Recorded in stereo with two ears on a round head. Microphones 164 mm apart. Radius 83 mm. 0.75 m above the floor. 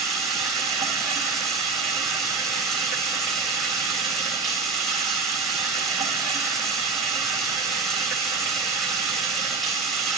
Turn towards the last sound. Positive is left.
turn(degrees=0)  # may be behind; listen again after turning